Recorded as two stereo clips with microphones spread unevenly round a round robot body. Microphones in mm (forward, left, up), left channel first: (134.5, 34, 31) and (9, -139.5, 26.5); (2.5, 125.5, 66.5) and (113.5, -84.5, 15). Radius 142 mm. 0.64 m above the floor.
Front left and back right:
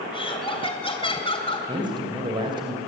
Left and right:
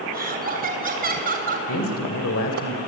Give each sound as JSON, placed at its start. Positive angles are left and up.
{"t": 0.1, "sound": "laughter", "azimuth_deg": -10, "distance_m": 3.5}
{"t": 1.7, "sound": "a man speaking", "azimuth_deg": 160, "distance_m": 3.0}